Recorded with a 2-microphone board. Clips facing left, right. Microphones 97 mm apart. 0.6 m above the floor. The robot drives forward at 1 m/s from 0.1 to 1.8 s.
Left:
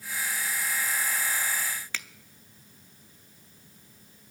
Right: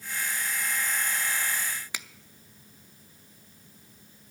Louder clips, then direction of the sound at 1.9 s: Left 1 dB; 15° right (ahead or behind).